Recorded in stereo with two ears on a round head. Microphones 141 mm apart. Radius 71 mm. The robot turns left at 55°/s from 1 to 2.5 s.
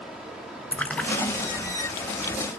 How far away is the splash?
About 0.8 m.